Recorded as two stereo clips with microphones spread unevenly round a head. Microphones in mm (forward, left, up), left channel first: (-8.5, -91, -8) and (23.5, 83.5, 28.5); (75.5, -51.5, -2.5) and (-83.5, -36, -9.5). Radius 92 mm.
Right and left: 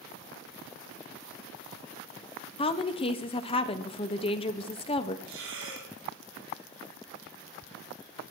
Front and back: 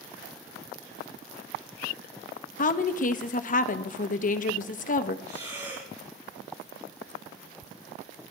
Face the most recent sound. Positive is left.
turn(degrees=105)